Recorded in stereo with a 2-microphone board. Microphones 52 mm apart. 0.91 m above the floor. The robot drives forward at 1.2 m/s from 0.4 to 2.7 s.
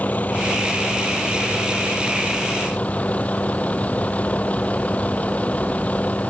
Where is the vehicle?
30° left (ahead or behind); by 6.3 s 25° left (ahead or behind).